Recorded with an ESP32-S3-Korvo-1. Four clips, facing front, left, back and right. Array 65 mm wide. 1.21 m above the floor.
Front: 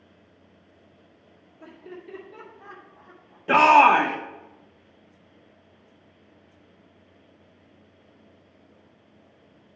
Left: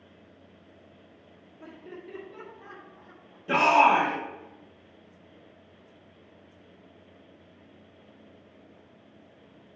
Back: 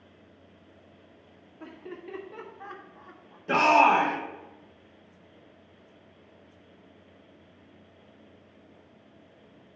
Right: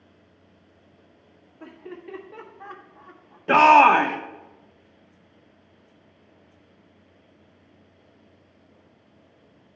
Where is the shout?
65° right, 0.8 m.